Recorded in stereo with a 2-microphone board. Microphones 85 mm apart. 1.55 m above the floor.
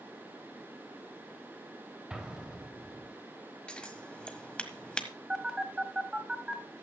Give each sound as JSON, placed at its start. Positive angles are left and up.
{"t": 2.1, "sound": "an explosion", "side_deg": -10, "distance_m": 2.5}
{"t": 3.7, "sound": "scissors", "side_deg": 10, "distance_m": 1.5}
{"t": 5.3, "sound": "a phone buzzing", "side_deg": -10, "distance_m": 2.5}